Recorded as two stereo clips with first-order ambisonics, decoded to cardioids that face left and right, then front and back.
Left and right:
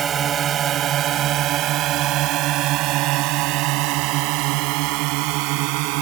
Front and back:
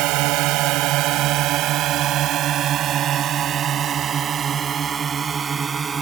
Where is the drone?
155° right; by 6.0 s 105° right.